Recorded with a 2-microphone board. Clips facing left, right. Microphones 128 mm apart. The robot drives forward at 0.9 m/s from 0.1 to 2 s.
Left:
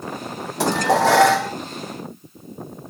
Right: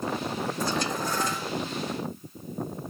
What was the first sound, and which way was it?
Dishes clattering, 75° left (ahead or behind).